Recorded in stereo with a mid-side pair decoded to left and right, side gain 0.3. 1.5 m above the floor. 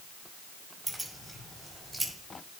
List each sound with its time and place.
0.9 s keys jangling: 10° right, 5.5 m; by 2.1 s 20° right, 5 m